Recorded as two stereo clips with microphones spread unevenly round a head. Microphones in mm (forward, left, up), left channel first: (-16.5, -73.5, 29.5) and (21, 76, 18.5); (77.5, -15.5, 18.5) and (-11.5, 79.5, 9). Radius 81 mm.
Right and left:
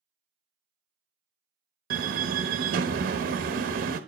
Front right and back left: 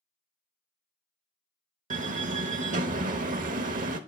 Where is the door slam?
110° left, 1.0 m.